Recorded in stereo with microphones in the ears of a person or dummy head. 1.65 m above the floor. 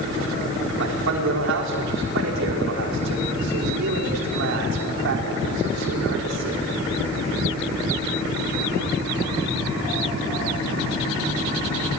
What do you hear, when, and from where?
0.8 s a man speaking: 75° right (ahead or behind), 5 m